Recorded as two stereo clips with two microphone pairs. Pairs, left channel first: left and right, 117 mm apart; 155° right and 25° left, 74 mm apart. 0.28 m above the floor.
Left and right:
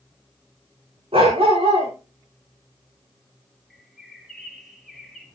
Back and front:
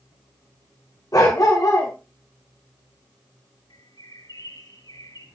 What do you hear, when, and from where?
1.1 s a dog barking: 120° right, 7 m
3.7 s a bird: straight behind, 3.5 m